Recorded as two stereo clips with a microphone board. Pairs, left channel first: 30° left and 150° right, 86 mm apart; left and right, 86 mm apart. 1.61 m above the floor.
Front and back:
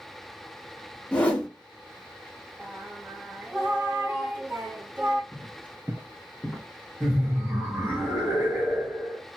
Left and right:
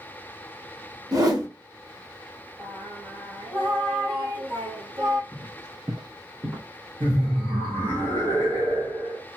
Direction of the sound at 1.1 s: 45° right.